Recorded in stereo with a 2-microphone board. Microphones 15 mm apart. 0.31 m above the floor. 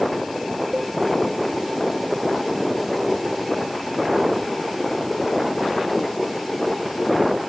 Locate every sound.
0.7 s a cowbell: 50° right (ahead or behind)